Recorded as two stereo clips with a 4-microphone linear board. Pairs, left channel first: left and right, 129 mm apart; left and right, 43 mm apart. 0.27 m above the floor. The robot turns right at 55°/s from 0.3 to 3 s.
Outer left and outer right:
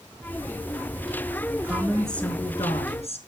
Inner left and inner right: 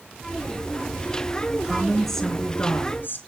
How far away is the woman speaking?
About 3.5 m.